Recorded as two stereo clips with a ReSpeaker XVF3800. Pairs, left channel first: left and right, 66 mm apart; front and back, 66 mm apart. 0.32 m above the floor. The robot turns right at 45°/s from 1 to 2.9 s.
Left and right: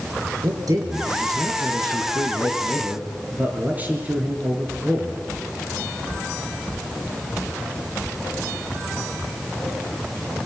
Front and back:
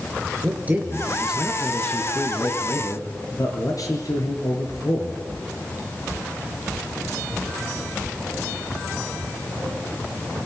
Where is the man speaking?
110° right, 5.5 m; by 5.2 s 25° right, 5.5 m.